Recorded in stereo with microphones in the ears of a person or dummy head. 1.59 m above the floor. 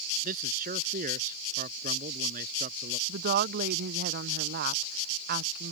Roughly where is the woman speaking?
Right.